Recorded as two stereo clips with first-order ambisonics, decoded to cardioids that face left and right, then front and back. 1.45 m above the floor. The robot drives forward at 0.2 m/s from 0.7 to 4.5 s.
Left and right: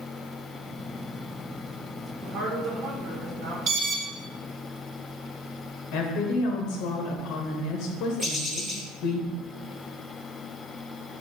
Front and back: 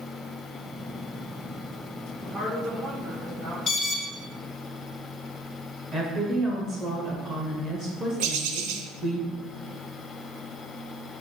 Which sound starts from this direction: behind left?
A woman speaking, at 5.9 s.